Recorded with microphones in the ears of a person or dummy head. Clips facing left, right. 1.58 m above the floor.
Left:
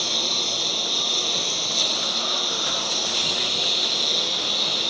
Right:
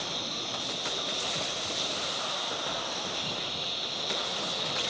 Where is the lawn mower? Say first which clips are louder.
Left 6 dB; 70° left (ahead or behind).